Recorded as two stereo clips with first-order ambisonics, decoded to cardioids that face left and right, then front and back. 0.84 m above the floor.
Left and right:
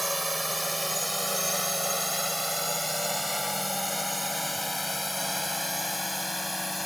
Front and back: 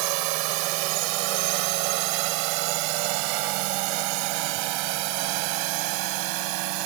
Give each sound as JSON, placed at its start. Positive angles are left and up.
{"t": 0.0, "sound": "a drone", "azimuth_deg": 180}